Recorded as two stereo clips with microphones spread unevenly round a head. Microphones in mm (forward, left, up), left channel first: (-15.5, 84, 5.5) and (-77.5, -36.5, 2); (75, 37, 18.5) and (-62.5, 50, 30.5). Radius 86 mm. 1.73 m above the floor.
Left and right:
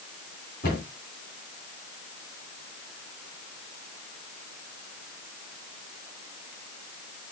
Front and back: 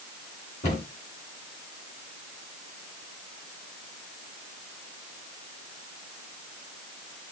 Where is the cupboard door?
30° left, 4 m.